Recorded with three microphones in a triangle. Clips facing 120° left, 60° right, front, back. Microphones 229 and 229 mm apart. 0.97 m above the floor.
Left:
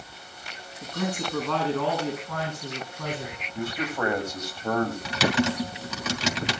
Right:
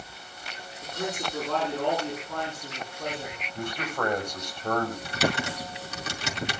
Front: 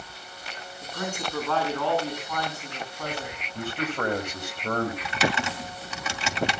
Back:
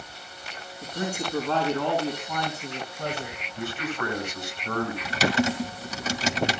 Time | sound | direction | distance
0.8 | a man speaking | 110° left | 8.5 m
3.5 | a man speaking | 35° left | 6 m
5.0 | typing on a keyboard | 130° left | 2.5 m